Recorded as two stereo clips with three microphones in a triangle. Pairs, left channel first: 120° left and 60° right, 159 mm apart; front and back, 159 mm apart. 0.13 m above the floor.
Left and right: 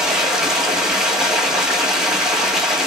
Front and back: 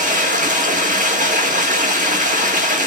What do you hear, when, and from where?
0.0 s running water: 145° right, 1.1 m